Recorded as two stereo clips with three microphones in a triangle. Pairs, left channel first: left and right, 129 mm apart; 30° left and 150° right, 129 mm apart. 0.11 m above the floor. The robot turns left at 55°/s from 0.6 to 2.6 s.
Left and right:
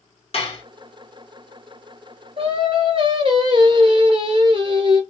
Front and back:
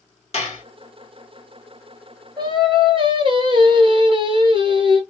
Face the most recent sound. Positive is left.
turn(degrees=-120)